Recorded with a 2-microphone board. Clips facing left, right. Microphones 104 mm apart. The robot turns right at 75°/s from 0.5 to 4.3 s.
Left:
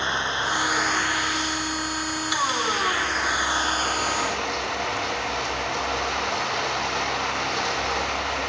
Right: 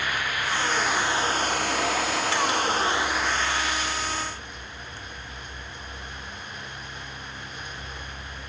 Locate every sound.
0.0 s running water: 155° left; by 8.5 s 80° left